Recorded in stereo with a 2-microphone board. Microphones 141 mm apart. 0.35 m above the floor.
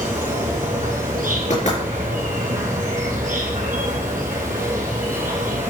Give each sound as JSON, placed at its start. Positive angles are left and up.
{"t": 0.0, "sound": "an insect", "side_deg": -75, "distance_m": 3.0}
{"t": 1.5, "sound": "knocking", "side_deg": 60, "distance_m": 4.5}